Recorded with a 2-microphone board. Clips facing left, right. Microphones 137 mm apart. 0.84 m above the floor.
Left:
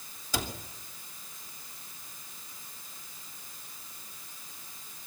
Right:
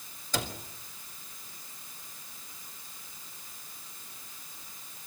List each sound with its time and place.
0.3 s a cupboard door: 10° left (ahead or behind), 3 m